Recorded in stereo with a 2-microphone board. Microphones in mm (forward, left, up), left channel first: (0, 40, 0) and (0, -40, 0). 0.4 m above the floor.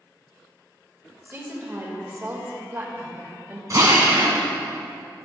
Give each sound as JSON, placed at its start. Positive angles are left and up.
{"t": 1.2, "sound": "a woman speaking", "side_deg": -30, "distance_m": 1.6}
{"t": 3.7, "sound": "a drill", "side_deg": -45, "distance_m": 1.4}